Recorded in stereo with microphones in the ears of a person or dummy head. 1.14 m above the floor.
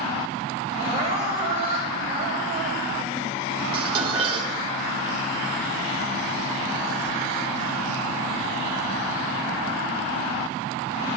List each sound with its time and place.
0.8 s crying: 30° right (ahead or behind), 3 m
3.7 s dishes clattering: 30° right (ahead or behind), 1.6 m